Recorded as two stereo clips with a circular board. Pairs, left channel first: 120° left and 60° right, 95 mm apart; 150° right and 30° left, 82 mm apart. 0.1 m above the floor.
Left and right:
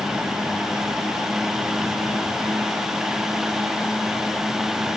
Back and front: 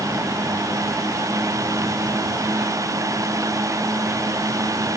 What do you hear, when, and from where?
Only background noise.